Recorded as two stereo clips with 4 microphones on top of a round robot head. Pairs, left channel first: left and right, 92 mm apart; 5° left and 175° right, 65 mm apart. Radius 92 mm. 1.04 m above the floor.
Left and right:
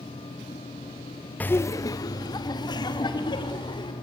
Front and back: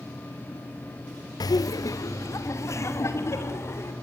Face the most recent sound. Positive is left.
turn(degrees=50)